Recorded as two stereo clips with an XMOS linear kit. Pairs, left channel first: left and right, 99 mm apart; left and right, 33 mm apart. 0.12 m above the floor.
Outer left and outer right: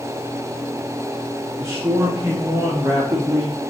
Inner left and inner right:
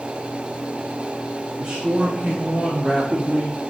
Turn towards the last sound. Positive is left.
turn(degrees=-35)  # may be behind; listen again after turning